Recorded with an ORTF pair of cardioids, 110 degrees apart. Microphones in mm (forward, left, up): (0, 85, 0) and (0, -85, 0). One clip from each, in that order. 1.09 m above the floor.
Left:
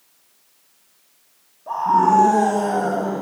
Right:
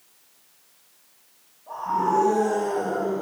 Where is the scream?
65° left, 8.5 m; by 3.2 s 70° left, 7.5 m.